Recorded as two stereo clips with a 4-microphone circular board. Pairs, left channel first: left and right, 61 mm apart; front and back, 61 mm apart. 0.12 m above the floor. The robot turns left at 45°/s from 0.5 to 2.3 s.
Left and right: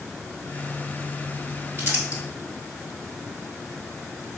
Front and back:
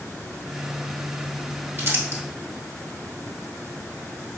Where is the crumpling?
135° right, 1.2 m; by 2.2 s 155° right, 1.2 m.